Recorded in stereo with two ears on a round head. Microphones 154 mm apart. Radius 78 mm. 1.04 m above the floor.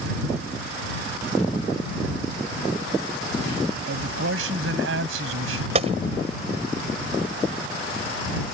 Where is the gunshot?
35° right (ahead or behind).